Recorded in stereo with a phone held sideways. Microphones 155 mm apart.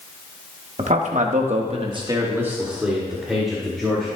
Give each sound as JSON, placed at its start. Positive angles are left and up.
{"t": 0.8, "sound": "a man speaking", "side_deg": -50, "distance_m": 1.4}